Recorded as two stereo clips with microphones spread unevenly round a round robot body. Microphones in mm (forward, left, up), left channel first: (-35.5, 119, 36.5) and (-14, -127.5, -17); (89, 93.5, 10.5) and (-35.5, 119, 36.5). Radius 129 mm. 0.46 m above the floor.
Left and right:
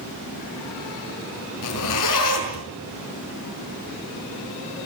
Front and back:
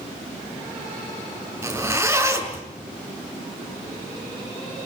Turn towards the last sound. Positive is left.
turn(degrees=100)